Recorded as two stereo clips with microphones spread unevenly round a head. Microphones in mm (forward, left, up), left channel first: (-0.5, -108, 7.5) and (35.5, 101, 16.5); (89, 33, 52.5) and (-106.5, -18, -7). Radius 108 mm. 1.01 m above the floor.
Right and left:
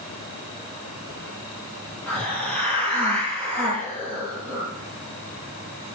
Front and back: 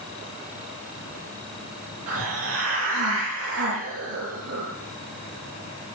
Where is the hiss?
175° left, 9 m.